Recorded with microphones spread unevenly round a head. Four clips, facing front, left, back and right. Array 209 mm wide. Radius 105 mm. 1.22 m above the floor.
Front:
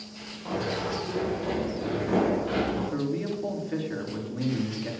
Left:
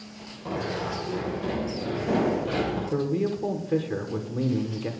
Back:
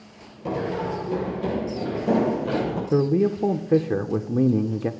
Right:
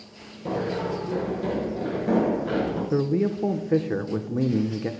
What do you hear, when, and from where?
0.5 s running footsteps: 140° right, 6.5 m; by 2.8 s 155° right, 9 m
2.9 s a man speaking: 150° right, 1.1 m